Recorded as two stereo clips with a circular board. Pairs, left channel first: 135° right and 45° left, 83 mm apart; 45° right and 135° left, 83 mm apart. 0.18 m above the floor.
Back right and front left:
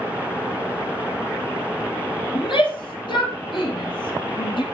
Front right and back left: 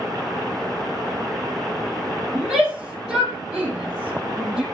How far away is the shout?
About 4 m.